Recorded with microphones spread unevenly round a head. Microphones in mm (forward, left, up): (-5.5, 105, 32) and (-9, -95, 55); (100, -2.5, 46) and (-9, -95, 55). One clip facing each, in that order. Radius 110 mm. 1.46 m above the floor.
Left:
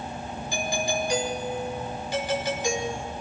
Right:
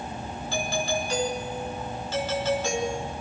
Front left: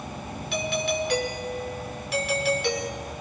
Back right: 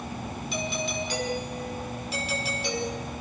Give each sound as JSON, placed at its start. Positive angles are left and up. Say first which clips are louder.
{"t": 0.5, "sound": "a doorbell", "louder": "even, front left 5 dB", "azimuth_deg": 10, "distance_m": 6.0}